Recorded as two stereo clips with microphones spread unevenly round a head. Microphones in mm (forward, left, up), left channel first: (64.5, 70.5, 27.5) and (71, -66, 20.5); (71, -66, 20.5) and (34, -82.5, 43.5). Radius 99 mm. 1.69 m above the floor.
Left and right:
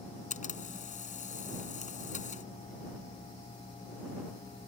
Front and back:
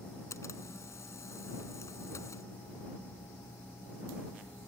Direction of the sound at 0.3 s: 65° left.